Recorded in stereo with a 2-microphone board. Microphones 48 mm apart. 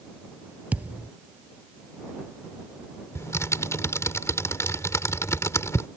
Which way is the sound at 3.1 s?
80° left.